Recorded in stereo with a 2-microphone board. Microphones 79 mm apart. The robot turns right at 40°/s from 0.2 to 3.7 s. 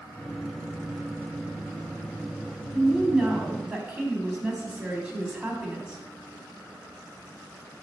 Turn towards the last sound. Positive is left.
turn(degrees=-150)